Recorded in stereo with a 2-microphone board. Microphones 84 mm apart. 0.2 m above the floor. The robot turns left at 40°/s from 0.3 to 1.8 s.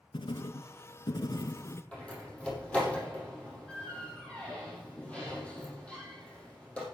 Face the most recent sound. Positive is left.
turn(degrees=15)  # may be behind; listen again after turning